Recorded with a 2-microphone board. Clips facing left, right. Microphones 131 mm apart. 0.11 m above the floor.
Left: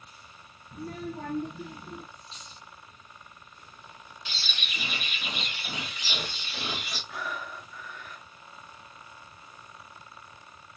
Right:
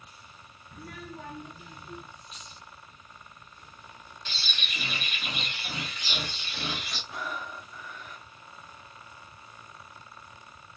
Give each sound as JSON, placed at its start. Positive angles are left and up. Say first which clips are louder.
{"t": 0.7, "sound": "a child speaking", "louder": "left 6 dB", "side_deg": 20, "distance_m": 0.7}
{"t": 2.2, "sound": "a dropped coin", "louder": "even", "side_deg": 30, "distance_m": 3.0}
{"t": 4.2, "sound": "a bird", "louder": "even", "side_deg": 5, "distance_m": 3.0}
{"t": 7.1, "sound": "breathing", "louder": "even", "side_deg": -20, "distance_m": 2.5}